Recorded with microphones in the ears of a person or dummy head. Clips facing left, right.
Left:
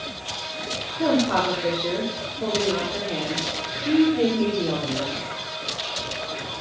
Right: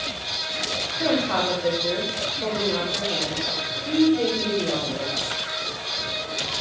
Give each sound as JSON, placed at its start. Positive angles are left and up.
{"t": 0.9, "sound": "a woman speaking", "side_deg": 30, "distance_m": 6.0}